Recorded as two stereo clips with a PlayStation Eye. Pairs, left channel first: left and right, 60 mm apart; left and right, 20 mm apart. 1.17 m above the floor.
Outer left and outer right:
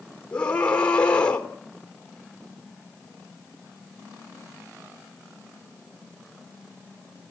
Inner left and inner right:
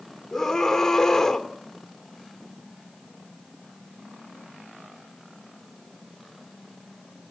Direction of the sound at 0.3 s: 20° left (ahead or behind).